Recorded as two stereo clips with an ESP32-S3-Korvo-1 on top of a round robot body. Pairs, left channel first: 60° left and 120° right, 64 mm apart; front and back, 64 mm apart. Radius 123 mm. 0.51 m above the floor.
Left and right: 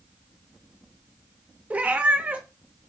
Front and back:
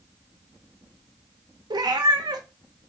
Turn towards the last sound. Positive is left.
turn(degrees=170)